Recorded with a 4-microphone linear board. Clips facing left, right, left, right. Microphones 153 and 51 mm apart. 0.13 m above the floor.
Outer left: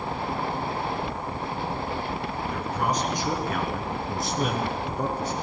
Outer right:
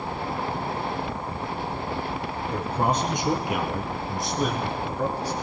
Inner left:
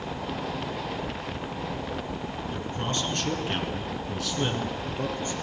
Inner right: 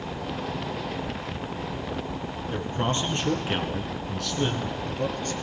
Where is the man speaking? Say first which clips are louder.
Outer right 3 dB, inner right 5 dB; 35° right (ahead or behind), 2 m; by 5.3 s 25° left (ahead or behind), 2 m.